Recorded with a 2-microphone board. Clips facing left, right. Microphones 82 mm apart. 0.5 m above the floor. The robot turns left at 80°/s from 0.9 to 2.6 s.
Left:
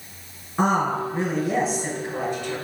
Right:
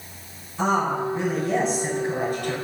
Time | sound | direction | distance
0.6 | a woman speaking | 60° left | 3.5 m